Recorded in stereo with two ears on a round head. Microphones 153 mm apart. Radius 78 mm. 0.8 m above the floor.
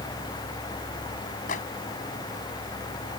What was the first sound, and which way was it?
A microwave, 45° left (ahead or behind).